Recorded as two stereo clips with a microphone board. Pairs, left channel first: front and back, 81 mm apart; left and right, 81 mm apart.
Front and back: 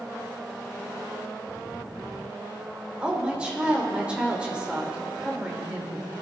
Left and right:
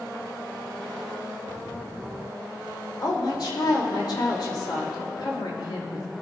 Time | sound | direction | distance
3.0 | a woman speaking | 105° left | 2.5 m